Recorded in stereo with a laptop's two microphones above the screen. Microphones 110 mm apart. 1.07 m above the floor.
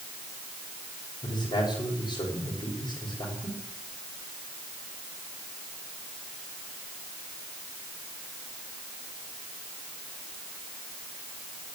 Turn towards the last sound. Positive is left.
turn(degrees=45)  # may be behind; listen again after turning